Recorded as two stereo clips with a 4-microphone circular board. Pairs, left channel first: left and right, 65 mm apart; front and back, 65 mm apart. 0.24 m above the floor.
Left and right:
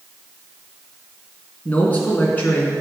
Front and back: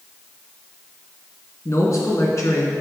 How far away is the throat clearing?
I don't hear throat clearing.